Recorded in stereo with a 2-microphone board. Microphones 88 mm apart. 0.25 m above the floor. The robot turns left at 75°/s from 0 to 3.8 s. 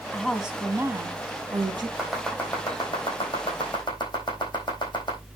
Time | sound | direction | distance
0.1 | a woman speaking | 15° left | 1.7 m
2.0 | chopping | 10° right (ahead or behind) | 3.5 m